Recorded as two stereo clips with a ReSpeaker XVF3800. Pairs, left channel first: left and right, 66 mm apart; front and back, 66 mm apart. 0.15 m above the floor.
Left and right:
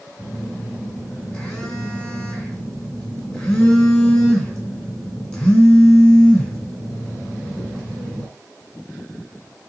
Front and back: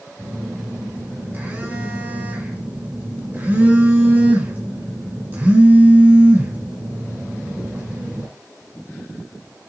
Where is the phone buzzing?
160° left, 1.7 m.